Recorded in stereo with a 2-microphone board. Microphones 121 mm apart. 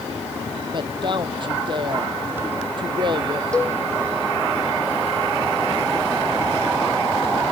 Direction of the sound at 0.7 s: 40° right (ahead or behind).